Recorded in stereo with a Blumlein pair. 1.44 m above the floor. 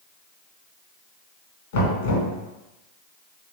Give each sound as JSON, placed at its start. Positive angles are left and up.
{"t": 1.7, "sound": "knocking", "azimuth_deg": 55, "distance_m": 1.2}